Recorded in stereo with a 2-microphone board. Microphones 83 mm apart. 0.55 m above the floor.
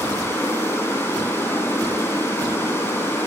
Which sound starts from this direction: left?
Running water, at 0.0 s.